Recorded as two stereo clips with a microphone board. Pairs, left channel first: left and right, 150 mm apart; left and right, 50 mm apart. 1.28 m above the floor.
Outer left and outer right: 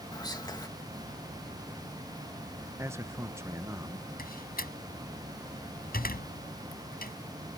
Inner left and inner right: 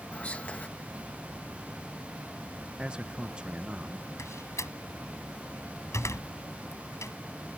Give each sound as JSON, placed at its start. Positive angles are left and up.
{"t": 0.1, "sound": "whispering", "side_deg": 25}
{"t": 2.8, "sound": "a man speaking", "side_deg": -20}
{"t": 4.2, "sound": "a door slam", "side_deg": 70}